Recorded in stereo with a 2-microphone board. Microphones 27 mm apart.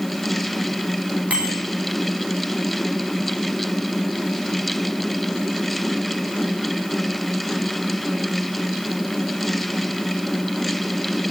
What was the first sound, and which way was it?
A bicycle bell, 80° right.